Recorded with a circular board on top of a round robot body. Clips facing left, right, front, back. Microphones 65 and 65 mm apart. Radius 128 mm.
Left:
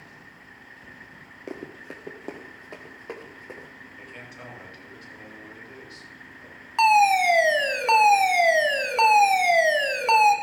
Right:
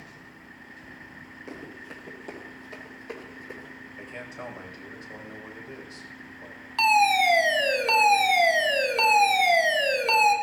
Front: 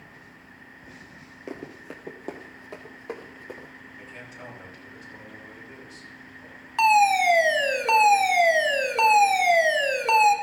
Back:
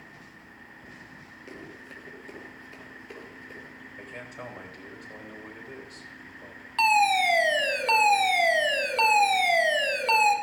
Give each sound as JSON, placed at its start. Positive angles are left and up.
{"t": 1.5, "sound": "running footsteps", "azimuth_deg": 50, "distance_m": 1.0}
{"t": 4.0, "sound": "a man speaking", "azimuth_deg": -150, "distance_m": 4.0}
{"t": 6.8, "sound": "a fire alarm", "azimuth_deg": 60, "distance_m": 1.6}